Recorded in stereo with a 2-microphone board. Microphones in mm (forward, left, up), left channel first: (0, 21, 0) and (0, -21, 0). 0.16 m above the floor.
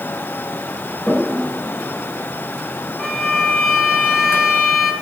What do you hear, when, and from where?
1.1 s a toilet flushing: 20° left (ahead or behind), 4.5 m
3.0 s a violin: centre (ahead or behind), 3.5 m